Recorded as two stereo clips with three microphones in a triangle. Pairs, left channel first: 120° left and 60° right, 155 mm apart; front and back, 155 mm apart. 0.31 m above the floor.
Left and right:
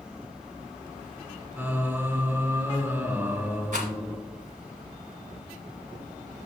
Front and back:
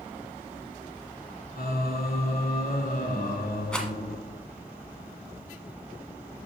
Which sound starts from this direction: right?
A rattle, at 3.7 s.